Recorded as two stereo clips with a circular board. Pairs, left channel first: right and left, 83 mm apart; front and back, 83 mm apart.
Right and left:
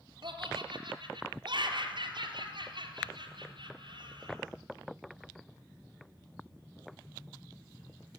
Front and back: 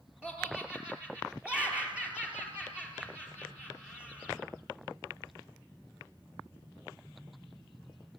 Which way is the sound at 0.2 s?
105° left.